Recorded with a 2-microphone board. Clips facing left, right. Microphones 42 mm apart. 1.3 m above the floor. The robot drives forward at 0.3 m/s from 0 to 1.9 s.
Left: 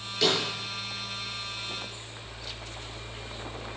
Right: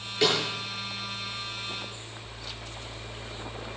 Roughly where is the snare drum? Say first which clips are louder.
Right 1 dB; centre.